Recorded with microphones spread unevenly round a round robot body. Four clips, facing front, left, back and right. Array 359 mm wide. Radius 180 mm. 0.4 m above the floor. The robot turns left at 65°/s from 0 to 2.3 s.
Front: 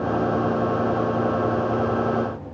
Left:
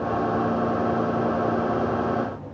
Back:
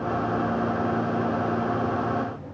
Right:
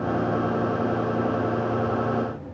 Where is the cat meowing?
No cat meowing in this recording.